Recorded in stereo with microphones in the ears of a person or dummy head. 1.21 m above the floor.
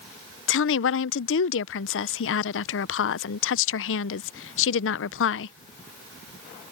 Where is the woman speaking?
65° left (ahead or behind).